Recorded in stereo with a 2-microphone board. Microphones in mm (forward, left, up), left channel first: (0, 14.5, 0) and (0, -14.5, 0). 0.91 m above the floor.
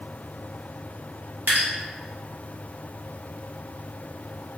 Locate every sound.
1.5 s dripping: 85° right, 1.1 m